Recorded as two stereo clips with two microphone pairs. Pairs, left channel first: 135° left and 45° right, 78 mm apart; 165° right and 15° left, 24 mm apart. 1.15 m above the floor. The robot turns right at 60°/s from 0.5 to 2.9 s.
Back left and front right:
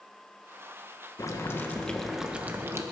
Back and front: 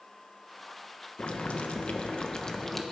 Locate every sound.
1.2 s boiling: 170° left, 1.2 m; by 2.8 s 90° right, 1.2 m